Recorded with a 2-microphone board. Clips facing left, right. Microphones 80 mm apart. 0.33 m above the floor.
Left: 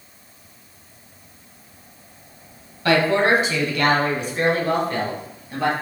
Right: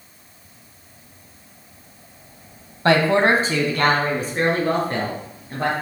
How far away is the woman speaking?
About 1.6 m.